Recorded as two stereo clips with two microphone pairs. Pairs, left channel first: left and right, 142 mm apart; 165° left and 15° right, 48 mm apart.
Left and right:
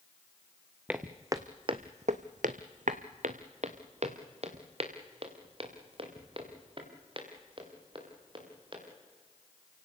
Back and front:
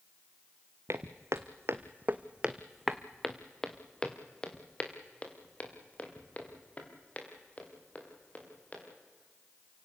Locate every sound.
0.9 s footsteps: 10° right, 1.4 m; by 8.8 s 140° right, 6.5 m